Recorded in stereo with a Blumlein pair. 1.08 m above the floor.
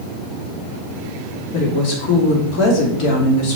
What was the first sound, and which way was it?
A woman speaking, 40° left.